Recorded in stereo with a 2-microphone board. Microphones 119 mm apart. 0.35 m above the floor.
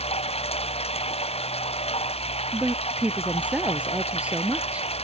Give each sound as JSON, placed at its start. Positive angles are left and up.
{"t": 0.0, "sound": "running water", "side_deg": 55}
{"t": 2.5, "sound": "a woman speaking", "side_deg": -10}